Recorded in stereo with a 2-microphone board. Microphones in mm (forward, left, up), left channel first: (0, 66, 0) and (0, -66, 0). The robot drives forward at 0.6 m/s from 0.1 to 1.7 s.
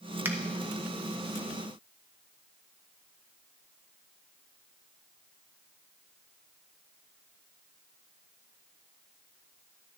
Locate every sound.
0.2 s a finger snap: 15° right (ahead or behind), 0.8 m